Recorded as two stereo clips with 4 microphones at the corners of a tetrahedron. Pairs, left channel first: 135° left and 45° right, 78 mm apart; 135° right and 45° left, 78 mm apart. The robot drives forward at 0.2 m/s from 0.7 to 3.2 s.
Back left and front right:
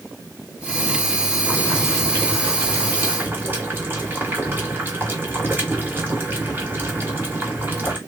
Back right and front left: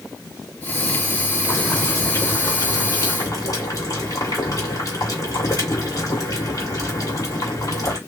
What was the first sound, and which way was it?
Boiling, 95° right.